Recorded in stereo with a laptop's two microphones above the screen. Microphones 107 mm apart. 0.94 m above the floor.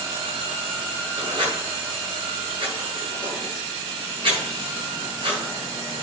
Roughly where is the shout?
No shout in this recording.